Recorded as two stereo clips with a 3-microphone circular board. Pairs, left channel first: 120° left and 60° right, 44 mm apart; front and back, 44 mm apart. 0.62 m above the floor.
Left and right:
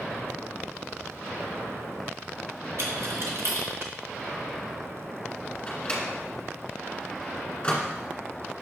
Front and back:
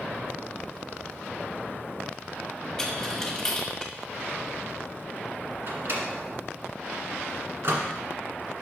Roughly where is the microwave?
Behind.